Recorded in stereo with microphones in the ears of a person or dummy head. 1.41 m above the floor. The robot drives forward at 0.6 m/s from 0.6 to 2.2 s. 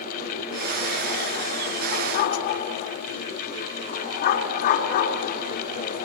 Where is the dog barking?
50° left (ahead or behind), 3 m.